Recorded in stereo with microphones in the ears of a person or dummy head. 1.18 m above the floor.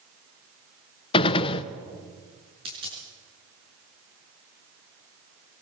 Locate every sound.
1.1 s a gunshot: 30° left (ahead or behind), 0.9 m
2.6 s a dropped coin: 25° right (ahead or behind), 5.5 m